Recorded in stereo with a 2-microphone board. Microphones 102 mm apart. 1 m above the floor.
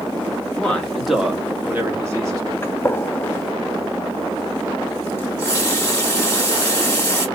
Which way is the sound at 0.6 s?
15° left (ahead or behind).